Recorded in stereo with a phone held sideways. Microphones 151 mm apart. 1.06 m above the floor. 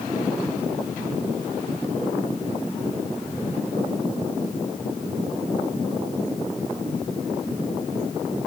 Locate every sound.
Only background noise.